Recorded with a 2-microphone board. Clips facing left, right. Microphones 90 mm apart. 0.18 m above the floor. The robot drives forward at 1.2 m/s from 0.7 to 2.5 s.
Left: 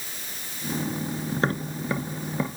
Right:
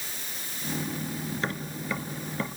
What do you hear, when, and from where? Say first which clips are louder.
1.3 s tapping: left 6 dB; 45° left (ahead or behind), 0.9 m; by 2.5 s 20° left (ahead or behind), 2.0 m